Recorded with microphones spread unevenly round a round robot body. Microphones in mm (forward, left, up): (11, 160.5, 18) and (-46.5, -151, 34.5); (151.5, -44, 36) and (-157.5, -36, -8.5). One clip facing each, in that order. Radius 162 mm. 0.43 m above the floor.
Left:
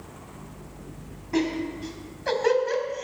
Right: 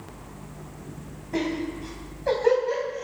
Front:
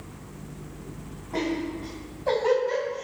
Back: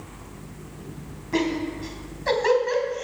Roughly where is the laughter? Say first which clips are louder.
Left 2 dB, back 3 dB; behind left.